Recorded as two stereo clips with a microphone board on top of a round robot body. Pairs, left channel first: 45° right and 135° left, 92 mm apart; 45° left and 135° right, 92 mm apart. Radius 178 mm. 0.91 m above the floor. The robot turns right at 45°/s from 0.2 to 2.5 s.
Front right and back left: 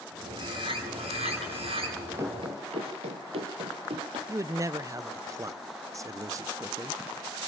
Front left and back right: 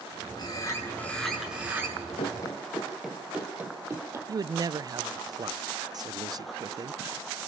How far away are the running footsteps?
About 1.2 m.